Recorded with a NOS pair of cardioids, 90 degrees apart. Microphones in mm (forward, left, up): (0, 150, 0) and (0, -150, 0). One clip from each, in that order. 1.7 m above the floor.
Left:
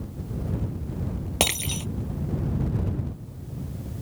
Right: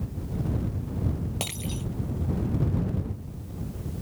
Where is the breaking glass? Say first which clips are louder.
Left 12 dB; 70° left.